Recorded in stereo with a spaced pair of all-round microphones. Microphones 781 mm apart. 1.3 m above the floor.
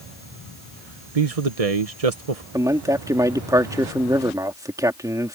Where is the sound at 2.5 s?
5° right (ahead or behind).